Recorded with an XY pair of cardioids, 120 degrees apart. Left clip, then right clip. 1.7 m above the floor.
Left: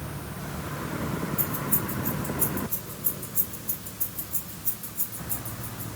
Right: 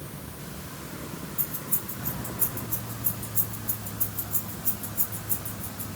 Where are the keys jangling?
5° left, 3.5 m; by 5.9 s 40° right, 2.5 m.